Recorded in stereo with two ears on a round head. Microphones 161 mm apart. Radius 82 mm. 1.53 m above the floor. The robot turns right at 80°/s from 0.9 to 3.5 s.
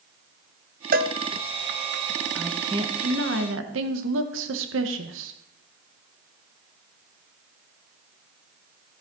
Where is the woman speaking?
175° left, 1.6 m; by 5.3 s 90° right, 1.6 m.